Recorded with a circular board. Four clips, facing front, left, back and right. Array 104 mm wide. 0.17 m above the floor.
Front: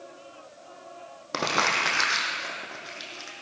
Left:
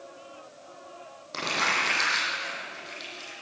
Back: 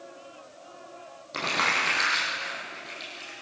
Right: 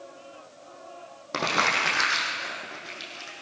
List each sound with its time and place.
1.3 s crumpling: 35° right, 4.5 m